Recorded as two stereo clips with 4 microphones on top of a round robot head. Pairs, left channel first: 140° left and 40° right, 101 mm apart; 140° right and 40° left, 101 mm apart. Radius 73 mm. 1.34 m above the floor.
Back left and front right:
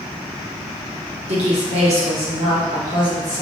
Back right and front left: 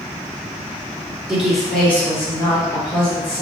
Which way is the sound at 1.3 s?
40° right.